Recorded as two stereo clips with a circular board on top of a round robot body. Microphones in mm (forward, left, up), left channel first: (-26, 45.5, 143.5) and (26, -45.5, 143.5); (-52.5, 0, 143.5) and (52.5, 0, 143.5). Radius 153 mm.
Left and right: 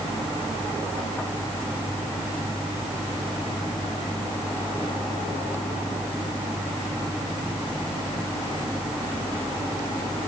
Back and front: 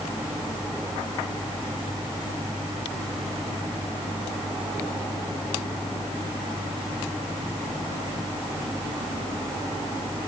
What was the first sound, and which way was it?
Only background noise.